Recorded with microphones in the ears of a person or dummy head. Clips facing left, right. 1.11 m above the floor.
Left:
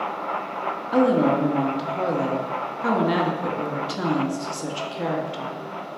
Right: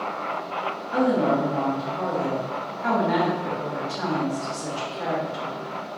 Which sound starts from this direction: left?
A woman speaking, at 0.9 s.